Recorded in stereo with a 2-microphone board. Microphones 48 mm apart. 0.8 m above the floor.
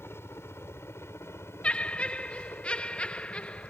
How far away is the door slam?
No door slam in this recording.